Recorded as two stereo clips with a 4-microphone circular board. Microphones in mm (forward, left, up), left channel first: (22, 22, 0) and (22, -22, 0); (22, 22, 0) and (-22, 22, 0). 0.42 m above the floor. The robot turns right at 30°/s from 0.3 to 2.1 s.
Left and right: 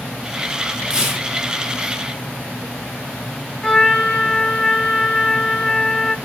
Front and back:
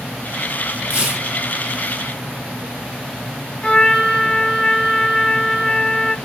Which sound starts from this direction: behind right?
Tearing paper, at 0.9 s.